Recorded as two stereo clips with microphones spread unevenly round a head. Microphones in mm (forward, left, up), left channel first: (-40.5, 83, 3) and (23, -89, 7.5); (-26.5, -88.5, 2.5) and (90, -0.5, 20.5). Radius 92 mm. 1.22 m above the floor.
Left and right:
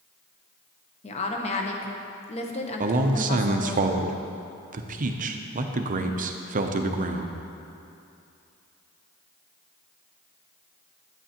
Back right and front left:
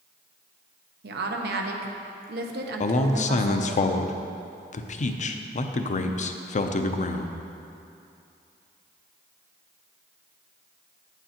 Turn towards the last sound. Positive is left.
turn(degrees=-115)